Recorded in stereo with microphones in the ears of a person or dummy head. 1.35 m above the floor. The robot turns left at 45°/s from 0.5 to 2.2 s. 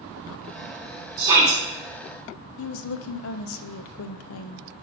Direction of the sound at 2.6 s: 70° left (ahead or behind).